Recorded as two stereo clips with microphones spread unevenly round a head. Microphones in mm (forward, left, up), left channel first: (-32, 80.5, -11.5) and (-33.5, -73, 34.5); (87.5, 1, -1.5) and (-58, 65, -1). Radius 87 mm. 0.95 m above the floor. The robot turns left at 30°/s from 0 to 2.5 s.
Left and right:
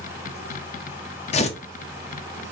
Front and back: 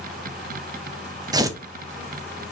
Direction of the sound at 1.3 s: 95° left.